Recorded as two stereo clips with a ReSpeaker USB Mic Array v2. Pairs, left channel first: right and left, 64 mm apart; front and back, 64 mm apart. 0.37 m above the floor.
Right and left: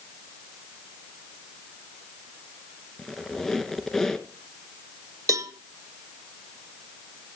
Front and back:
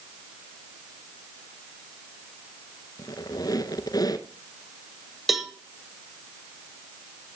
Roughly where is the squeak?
Ahead.